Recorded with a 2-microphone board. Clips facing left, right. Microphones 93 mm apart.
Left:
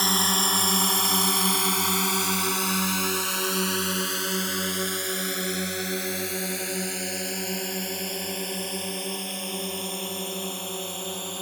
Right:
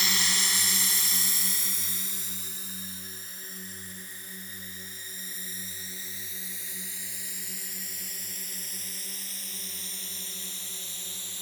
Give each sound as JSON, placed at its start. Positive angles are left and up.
{"t": 0.0, "sound": "a drone", "side_deg": 40}